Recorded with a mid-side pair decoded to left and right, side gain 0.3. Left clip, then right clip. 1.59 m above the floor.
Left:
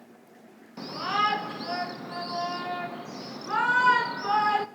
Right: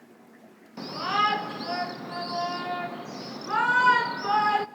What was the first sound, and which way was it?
A shout, 15° right.